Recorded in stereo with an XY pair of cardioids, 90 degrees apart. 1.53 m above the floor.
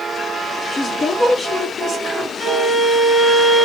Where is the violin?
Straight ahead, 1.5 m.